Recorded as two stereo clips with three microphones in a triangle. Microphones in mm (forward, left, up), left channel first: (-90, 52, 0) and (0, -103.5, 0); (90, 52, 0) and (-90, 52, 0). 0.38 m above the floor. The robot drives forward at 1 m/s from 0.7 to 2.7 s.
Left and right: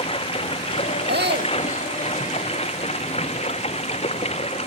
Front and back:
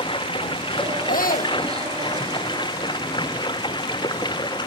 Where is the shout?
40° right.